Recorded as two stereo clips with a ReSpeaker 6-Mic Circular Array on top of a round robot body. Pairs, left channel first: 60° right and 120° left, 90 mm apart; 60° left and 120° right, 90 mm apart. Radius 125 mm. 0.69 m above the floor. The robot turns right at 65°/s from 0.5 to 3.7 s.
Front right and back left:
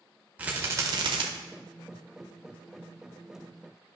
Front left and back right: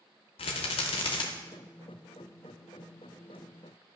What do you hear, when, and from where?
0.4 s a rattle: 50° left, 0.5 m; by 1.2 s 95° left, 0.5 m